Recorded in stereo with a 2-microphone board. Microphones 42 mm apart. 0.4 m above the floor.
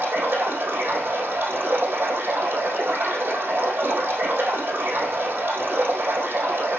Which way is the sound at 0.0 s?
50° right (ahead or behind).